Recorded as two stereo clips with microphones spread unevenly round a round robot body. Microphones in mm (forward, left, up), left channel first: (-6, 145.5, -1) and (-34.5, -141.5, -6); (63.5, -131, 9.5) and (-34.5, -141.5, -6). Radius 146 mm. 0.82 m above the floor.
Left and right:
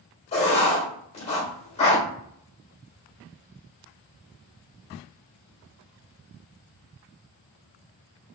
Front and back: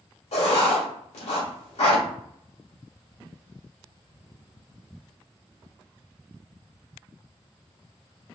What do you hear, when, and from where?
0.3 s writing: 15° left, 1.6 m